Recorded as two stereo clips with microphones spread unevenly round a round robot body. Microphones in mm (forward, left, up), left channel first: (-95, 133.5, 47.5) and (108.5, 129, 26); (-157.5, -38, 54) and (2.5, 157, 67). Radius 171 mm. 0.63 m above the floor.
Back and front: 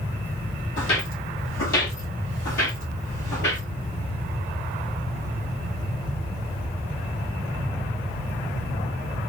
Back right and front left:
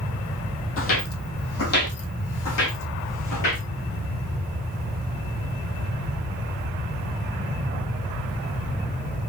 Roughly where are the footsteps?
Behind.